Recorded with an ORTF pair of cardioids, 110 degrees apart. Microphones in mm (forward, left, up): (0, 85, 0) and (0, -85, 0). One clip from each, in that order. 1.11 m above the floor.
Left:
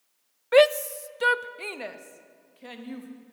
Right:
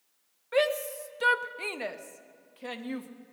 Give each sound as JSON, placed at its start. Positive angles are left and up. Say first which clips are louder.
{"t": 0.5, "sound": "a shout", "louder": "left 8 dB", "azimuth_deg": 45, "distance_m": 0.6}